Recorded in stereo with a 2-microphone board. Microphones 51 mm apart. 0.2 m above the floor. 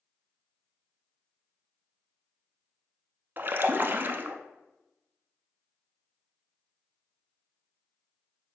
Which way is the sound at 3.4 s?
40° right (ahead or behind).